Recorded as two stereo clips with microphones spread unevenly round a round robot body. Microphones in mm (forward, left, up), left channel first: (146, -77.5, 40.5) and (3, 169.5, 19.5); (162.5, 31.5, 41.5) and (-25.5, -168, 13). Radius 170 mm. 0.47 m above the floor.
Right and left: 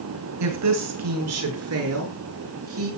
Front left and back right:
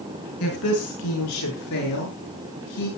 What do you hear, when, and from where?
0.4 s a woman speaking: 100° left, 6.5 m; by 2.9 s 80° left, 9 m